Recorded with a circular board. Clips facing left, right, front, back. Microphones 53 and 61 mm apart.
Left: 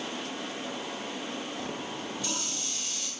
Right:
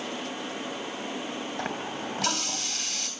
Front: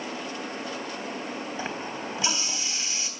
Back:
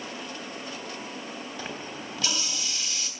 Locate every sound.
1.6 s a running tap: 70° right, 3 m